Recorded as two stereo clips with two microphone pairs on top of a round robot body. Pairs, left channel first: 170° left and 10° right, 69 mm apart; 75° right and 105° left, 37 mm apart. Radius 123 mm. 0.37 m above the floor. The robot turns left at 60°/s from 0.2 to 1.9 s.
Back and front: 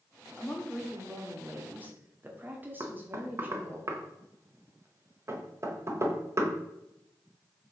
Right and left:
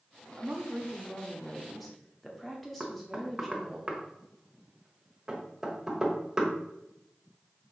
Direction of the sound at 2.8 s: 25° left.